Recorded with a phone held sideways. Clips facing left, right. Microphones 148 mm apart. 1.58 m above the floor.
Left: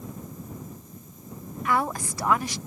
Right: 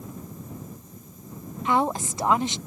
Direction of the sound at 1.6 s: 25° right (ahead or behind).